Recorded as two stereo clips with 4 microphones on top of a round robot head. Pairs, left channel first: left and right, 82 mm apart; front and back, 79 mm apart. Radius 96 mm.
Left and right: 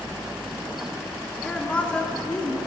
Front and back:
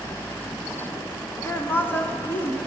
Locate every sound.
1.4 s a woman speaking: 30° left, 0.7 m